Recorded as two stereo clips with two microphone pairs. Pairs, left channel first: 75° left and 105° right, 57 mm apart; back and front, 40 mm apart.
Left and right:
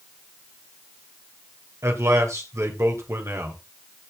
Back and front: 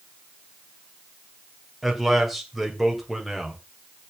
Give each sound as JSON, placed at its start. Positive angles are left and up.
{"t": 1.8, "sound": "a man speaking", "azimuth_deg": -95, "distance_m": 2.5}